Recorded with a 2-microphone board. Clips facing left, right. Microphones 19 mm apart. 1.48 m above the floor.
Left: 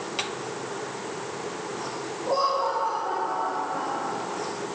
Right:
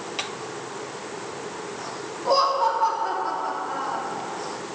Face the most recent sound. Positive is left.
turn(degrees=-90)